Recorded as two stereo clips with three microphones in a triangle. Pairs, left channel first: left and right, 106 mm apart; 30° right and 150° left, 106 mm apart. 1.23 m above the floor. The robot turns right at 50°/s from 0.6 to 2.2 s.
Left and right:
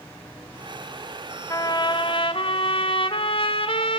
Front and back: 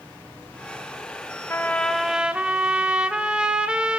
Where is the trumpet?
35° left, 1.9 m; by 4.0 s 70° left, 1.9 m.